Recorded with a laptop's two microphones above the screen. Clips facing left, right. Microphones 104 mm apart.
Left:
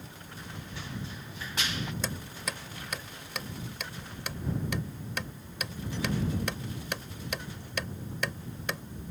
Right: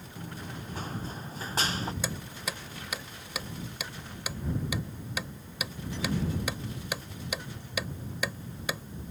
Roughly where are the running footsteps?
Right.